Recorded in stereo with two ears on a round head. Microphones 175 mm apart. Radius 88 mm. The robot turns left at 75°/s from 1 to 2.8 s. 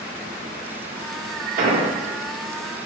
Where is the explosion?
40° right (ahead or behind), 0.7 m; by 1.9 s 25° right (ahead or behind), 0.7 m.